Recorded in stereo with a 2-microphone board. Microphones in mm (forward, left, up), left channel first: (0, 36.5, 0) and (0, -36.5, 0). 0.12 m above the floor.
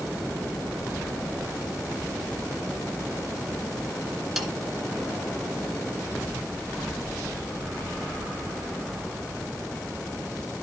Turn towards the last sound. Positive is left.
turn(degrees=-5)  # may be behind; listen again after turning